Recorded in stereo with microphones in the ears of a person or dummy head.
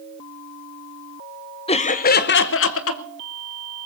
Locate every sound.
1.7 s laughter: 25° left (ahead or behind), 0.8 m; by 3.0 s 70° left (ahead or behind), 1.2 m